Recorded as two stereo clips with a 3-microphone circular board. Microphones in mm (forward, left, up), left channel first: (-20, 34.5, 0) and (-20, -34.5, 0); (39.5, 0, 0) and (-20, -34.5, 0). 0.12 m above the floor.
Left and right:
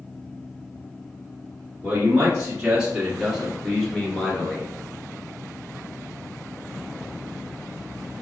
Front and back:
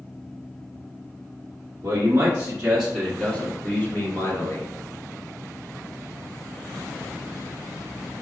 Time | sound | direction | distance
1.8 | a man speaking | 140° right | 1.4 m